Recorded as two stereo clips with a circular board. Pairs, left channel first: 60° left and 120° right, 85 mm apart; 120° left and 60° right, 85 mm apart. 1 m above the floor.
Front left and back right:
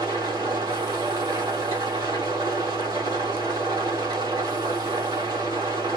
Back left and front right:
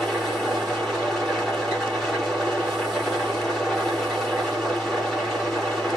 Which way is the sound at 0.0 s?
150° right.